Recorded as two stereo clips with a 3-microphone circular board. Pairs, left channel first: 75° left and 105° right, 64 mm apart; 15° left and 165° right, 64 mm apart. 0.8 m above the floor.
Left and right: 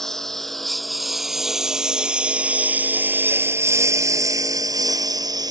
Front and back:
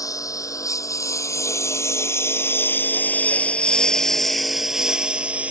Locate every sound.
0.0 s a lawn mower: 10° right; by 5.5 s 95° right